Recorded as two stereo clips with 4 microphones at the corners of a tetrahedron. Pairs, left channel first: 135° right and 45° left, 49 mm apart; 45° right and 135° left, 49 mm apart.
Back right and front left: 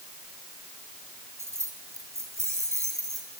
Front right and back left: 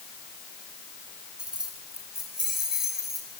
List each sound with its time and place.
1.4 s keys jangling: 60° left, 4 m; by 3.4 s 45° left, 7 m